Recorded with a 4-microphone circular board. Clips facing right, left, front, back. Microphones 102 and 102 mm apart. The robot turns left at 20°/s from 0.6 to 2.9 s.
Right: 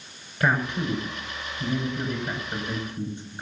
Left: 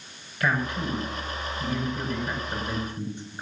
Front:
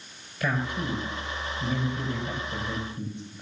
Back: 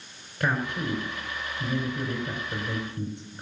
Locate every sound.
0.4 s a man speaking: 150° right, 6 m; by 3.4 s 165° left, 6 m